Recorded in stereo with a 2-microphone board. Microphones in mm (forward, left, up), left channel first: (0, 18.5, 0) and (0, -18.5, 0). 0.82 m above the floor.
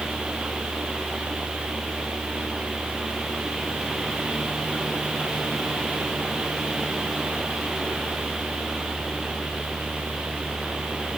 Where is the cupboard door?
I don't hear a cupboard door.